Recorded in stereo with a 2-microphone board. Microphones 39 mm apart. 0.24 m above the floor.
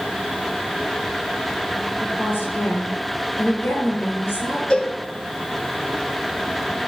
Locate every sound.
2.0 s a woman speaking: 65° left (ahead or behind), 4 m
4.7 s a cowbell: 25° left (ahead or behind), 1.0 m